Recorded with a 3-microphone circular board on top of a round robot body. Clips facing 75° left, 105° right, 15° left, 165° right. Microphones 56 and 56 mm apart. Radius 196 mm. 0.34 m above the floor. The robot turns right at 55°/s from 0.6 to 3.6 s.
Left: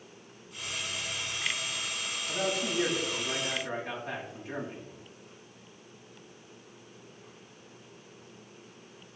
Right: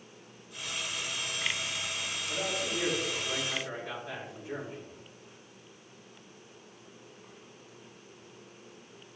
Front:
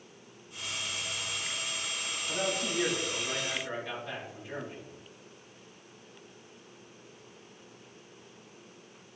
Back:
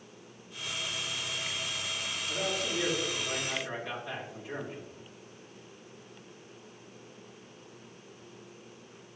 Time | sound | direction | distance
2.3 | a man speaking | 35° left | 4 m